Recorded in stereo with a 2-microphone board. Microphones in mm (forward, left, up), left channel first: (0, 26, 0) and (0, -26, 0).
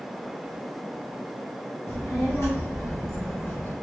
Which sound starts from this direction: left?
A child speaking, at 1.9 s.